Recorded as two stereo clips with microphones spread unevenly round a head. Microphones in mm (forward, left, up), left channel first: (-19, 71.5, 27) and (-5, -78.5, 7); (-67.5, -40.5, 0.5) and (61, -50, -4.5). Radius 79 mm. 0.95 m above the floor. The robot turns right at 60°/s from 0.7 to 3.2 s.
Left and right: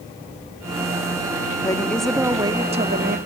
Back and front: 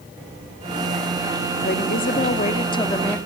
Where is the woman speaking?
160° left, 1.9 m; by 3.2 s 105° right, 1.9 m.